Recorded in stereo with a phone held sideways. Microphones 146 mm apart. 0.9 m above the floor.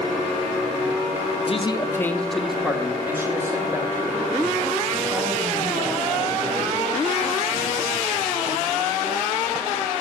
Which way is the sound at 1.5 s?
45° left (ahead or behind).